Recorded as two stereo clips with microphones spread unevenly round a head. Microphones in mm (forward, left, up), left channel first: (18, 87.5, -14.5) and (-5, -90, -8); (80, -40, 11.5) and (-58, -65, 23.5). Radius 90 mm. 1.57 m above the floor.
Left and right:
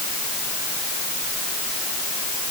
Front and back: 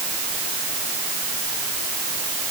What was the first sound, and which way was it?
Only background noise.